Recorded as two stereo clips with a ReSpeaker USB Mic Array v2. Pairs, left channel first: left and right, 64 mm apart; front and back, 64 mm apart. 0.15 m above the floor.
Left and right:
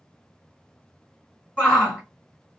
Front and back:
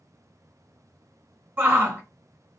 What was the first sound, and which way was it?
A shout, 150° left.